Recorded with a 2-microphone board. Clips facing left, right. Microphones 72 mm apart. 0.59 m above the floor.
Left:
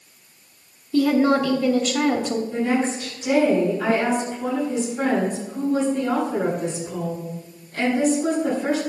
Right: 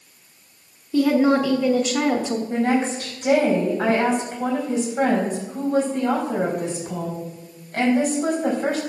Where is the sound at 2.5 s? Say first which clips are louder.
Right 3 dB; 55° right (ahead or behind), 4 m.